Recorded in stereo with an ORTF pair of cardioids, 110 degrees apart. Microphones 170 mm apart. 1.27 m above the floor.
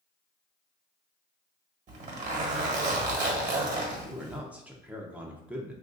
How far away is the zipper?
About 1.2 m.